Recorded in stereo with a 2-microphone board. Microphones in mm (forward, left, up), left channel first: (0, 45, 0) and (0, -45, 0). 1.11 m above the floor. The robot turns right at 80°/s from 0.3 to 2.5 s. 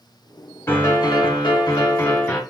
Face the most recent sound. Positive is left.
turn(degrees=175)